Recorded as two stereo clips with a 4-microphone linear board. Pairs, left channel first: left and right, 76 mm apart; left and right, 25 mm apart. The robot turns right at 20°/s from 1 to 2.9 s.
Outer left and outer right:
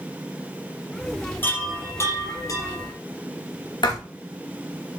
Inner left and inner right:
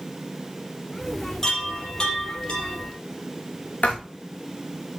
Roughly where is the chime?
Left.